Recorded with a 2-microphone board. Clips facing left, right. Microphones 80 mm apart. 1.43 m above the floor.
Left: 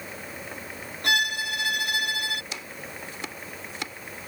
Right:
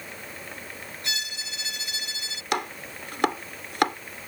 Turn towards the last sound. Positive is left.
turn(degrees=-65)  # may be behind; listen again after turning